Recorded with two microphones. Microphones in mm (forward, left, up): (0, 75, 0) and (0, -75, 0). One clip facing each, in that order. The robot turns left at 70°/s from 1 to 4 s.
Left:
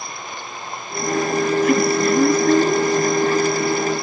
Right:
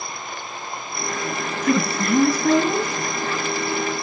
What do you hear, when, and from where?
1.6 s a woman speaking: 20° right, 6 m; by 2.9 s 105° right, 6 m